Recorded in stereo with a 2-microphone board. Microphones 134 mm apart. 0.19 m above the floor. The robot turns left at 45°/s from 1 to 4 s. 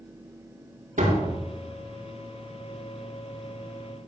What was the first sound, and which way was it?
A door slam, 80° right.